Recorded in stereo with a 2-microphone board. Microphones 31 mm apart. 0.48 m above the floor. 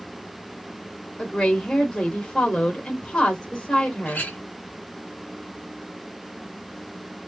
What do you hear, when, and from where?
1.2 s a woman speaking: 35° left (ahead or behind), 1.5 m
4.0 s a clink: 70° left (ahead or behind), 2 m